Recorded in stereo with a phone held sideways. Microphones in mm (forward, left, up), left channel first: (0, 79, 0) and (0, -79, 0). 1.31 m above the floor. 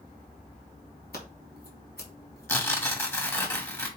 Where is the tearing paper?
15° left (ahead or behind), 1.5 m.